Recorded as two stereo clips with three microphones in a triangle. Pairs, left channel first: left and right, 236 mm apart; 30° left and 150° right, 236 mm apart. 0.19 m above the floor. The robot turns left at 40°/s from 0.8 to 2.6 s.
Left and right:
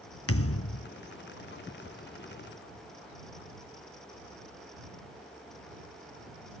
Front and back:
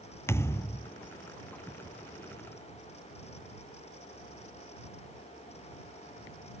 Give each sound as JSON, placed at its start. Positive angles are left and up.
{"t": 0.3, "sound": "a thud", "azimuth_deg": 110}